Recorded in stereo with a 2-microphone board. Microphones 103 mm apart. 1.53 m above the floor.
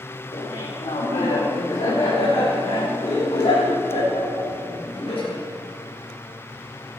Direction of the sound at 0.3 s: 75° left (ahead or behind).